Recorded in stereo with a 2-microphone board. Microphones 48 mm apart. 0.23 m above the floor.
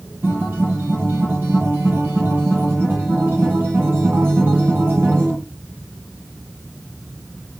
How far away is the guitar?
About 7 m.